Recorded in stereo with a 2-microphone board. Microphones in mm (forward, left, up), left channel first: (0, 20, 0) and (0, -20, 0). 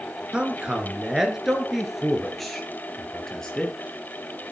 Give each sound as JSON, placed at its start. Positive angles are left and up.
{"t": 0.3, "sound": "a man speaking", "side_deg": -25, "distance_m": 2.5}